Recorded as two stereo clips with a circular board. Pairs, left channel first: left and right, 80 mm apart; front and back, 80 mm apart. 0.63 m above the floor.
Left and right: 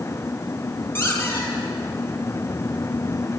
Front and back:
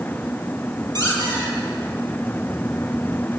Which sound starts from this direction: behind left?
A squeak, at 0.9 s.